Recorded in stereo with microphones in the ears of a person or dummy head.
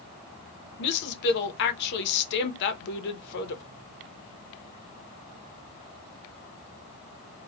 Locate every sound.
0.8 s a woman speaking: 60° left (ahead or behind), 0.6 m